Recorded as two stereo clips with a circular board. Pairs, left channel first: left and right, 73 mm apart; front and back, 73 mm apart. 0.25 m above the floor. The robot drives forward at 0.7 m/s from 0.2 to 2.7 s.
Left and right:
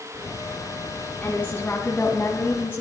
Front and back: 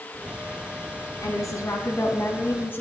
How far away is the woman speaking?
About 2.5 m.